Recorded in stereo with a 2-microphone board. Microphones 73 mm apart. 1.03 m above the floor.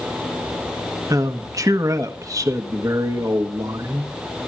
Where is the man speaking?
50° right (ahead or behind), 1.5 m.